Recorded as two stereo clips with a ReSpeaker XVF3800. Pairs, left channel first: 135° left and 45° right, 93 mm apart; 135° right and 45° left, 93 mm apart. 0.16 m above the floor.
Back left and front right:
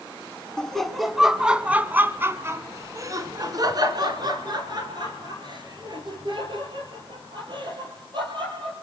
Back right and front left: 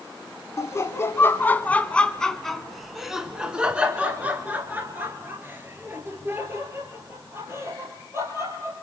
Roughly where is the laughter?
Behind right.